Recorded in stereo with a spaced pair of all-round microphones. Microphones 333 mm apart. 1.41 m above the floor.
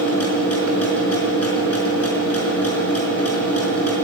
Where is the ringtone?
No ringtone in this recording.